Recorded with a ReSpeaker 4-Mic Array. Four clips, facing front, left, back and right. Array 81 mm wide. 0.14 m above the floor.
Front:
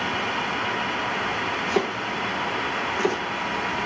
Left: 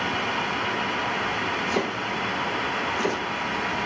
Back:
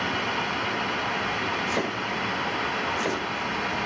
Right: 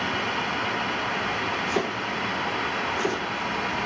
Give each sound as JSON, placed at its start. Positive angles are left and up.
{"t": 1.7, "sound": "chopping", "azimuth_deg": 0, "distance_m": 9.5}